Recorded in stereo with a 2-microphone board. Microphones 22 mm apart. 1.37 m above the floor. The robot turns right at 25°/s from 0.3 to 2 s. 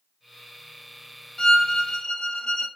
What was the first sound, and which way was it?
A violin, 25° left (ahead or behind).